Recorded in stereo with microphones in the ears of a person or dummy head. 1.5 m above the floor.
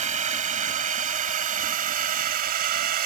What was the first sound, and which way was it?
A drone, 35° right (ahead or behind).